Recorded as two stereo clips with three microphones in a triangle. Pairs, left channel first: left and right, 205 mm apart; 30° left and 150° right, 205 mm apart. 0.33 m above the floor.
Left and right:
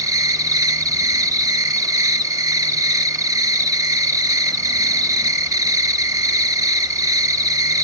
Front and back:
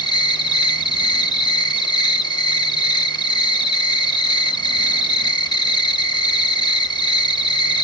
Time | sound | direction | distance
0.0 | an insect | 30° right | 0.8 m